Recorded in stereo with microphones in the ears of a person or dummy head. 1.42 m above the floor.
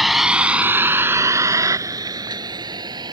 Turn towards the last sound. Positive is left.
turn(degrees=-25)  # may be behind; listen again after turning